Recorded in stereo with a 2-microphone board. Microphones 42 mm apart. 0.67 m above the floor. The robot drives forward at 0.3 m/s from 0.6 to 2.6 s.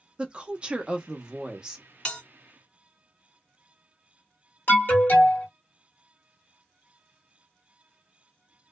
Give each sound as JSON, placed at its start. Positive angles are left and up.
{"t": 0.2, "sound": "a woman speaking", "side_deg": -25, "distance_m": 0.6}
{"t": 2.0, "sound": "a bell", "side_deg": 20, "distance_m": 1.5}
{"t": 4.7, "sound": "an alarm", "side_deg": 50, "distance_m": 1.1}